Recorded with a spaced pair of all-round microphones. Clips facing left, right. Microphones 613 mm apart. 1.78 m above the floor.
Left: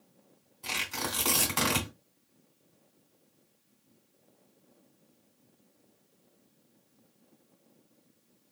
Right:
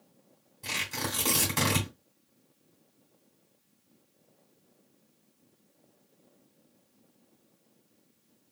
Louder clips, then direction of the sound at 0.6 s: Right 1 dB; 45° right (ahead or behind).